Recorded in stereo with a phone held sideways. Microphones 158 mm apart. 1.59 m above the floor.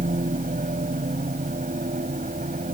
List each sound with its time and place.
0.0 s a machine running: 60° right (ahead or behind)